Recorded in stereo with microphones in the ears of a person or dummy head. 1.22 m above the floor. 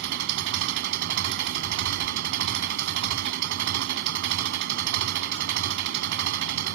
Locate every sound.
0.0 s an engine running: 65° right (ahead or behind)